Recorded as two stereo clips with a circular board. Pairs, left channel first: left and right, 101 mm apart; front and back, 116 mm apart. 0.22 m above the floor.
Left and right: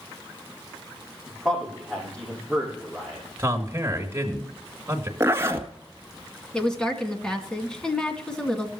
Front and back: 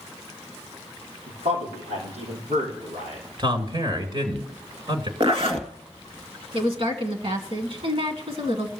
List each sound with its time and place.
1.3 s a man speaking: 175° left, 6 m
3.4 s a man speaking: 150° right, 2.5 m
5.2 s a zipper: 150° right, 1.4 m
6.5 s a woman speaking: 170° left, 2 m